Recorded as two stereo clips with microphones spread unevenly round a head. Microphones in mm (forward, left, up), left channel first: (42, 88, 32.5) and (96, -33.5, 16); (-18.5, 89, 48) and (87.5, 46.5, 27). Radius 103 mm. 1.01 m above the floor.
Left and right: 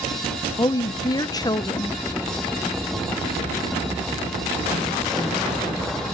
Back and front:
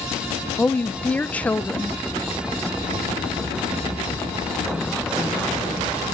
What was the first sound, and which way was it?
A woman speaking, 70° left.